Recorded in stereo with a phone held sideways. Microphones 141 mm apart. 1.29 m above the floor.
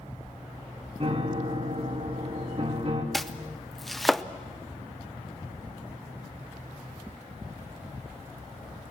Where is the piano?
50° right (ahead or behind), 3 m.